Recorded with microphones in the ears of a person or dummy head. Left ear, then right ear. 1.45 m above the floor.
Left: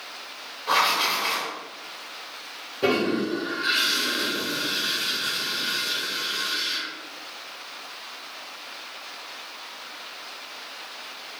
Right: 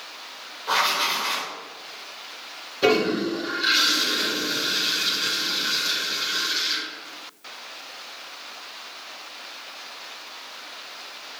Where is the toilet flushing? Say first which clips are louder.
Right 3 dB; 40° right (ahead or behind), 1.8 m.